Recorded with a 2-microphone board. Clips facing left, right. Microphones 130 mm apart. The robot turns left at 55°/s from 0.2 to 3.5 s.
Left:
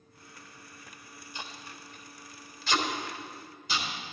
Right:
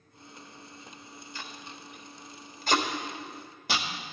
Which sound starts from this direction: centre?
Tape being pulled, at 1.4 s.